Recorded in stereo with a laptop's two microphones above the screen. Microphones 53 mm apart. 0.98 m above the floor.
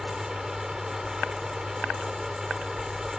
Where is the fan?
10° right (ahead or behind).